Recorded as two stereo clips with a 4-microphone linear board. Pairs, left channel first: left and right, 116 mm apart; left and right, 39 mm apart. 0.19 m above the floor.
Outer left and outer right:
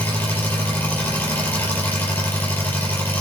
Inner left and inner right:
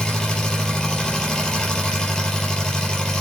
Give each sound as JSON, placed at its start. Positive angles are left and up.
{"t": 0.0, "sound": "an engine running", "side_deg": 20, "distance_m": 4.0}